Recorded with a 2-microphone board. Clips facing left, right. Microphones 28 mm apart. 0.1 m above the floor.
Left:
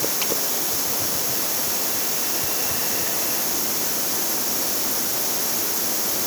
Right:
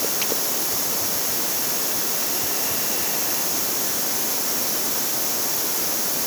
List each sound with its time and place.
Only background noise.